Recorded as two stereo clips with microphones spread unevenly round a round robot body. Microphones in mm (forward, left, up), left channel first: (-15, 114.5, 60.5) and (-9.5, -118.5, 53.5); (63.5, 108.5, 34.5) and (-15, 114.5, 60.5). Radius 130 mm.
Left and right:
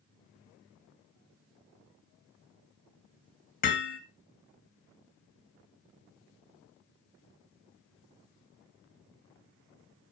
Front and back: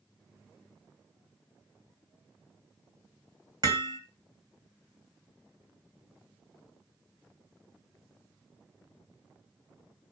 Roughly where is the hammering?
Behind left.